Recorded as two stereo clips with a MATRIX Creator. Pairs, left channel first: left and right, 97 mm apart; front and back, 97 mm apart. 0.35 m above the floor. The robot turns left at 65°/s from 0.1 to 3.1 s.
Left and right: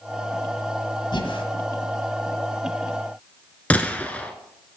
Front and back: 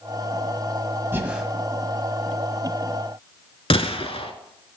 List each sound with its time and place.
1.1 s breathing: 115° left, 1.6 m; by 1.4 s 95° left, 1.6 m
3.7 s a gunshot: 15° left, 0.9 m